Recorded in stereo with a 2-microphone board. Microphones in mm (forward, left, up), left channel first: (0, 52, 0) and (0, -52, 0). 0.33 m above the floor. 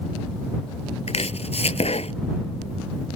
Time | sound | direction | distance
1.1 | chopping | 85° left | ?